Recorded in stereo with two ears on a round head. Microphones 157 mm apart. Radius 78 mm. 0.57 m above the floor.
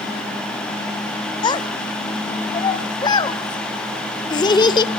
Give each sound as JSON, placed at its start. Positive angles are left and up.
{"t": 1.4, "sound": "a child speaking", "side_deg": 25, "distance_m": 1.0}